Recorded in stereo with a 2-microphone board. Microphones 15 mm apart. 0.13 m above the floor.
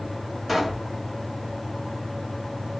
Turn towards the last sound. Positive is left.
turn(degrees=-10)  # may be behind; listen again after turning